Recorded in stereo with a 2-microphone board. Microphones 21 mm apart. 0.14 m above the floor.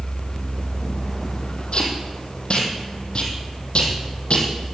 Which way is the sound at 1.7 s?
50° left (ahead or behind).